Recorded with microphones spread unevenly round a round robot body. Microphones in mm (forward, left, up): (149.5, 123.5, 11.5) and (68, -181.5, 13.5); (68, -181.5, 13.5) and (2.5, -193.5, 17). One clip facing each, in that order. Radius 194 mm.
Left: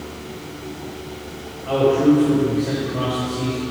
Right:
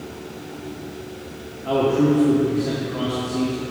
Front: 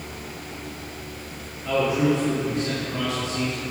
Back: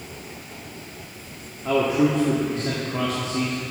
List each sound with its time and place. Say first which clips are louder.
1.6 s a man speaking: left 3 dB, back 1 dB; 130° right, 1.7 m